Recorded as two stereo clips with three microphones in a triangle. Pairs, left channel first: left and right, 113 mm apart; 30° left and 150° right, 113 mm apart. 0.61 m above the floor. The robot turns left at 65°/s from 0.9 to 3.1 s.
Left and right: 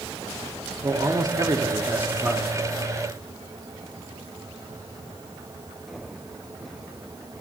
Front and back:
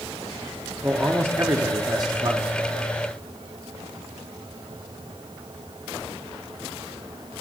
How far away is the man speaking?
About 1.1 m.